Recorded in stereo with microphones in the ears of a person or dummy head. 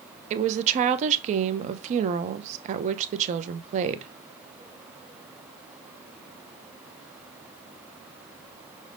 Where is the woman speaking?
40° right (ahead or behind), 0.5 m.